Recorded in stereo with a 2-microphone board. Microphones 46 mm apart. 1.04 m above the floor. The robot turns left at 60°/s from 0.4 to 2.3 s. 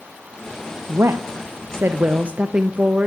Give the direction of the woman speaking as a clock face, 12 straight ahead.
2 o'clock.